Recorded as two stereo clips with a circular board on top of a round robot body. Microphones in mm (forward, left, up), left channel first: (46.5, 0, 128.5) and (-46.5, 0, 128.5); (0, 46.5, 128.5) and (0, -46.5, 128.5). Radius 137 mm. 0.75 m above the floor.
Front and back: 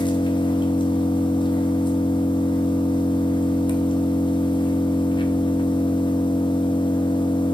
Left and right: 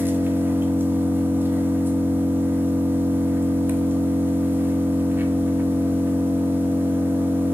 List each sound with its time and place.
0.0 s an engine running: 25° right, 1.2 m